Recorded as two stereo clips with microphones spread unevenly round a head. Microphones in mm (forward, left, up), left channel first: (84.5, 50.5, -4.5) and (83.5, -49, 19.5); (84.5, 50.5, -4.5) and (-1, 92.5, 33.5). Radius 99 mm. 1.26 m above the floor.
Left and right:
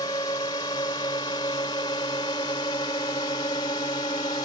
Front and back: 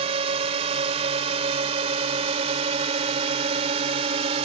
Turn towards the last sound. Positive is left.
turn(degrees=155)